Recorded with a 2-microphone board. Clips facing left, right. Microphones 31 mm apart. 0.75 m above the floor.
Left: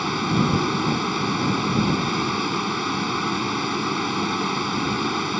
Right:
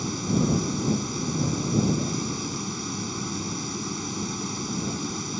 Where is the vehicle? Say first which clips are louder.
Left 4 dB; 45° left (ahead or behind).